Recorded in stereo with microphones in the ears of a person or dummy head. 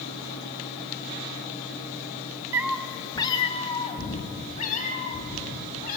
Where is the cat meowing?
15° right (ahead or behind), 0.6 m; by 6.0 s 45° left (ahead or behind), 3 m.